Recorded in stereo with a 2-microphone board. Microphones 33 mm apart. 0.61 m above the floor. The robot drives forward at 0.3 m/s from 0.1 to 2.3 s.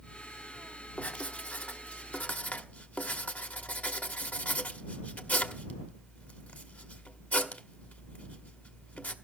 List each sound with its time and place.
1.0 s writing: 40° left (ahead or behind), 1.2 m; by 9.1 s 50° left (ahead or behind), 1.1 m